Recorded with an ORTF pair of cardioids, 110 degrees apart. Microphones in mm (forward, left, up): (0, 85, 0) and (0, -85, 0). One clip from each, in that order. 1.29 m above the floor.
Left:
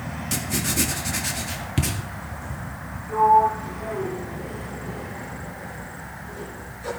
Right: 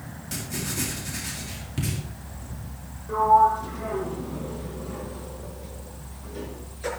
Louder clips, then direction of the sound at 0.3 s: Left 6 dB; 40° left.